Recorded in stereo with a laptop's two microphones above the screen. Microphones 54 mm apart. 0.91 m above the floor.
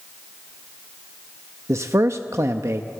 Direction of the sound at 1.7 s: 70° right (ahead or behind).